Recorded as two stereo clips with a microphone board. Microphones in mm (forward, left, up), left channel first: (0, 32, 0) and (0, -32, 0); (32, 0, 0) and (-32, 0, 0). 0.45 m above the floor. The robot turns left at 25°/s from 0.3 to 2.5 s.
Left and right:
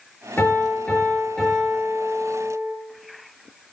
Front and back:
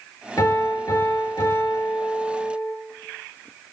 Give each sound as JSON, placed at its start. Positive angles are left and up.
{"t": 0.4, "sound": "a piano", "azimuth_deg": 35, "distance_m": 7.5}